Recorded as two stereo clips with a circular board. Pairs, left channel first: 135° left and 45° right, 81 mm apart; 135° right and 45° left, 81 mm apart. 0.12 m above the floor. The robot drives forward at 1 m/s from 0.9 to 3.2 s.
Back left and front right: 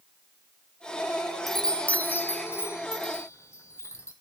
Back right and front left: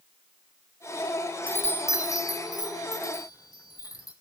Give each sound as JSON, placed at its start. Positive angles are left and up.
{"t": 1.5, "sound": "a chime", "azimuth_deg": -130, "distance_m": 0.7}